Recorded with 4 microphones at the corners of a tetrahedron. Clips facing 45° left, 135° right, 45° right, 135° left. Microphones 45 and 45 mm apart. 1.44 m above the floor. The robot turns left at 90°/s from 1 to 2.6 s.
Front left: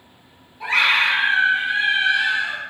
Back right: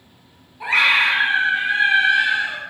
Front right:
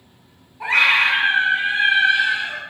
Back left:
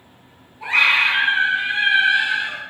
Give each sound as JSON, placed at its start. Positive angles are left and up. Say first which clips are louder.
{"t": 0.6, "sound": "a scream", "louder": "back right 1 dB, even", "azimuth_deg": -55, "distance_m": 1.3}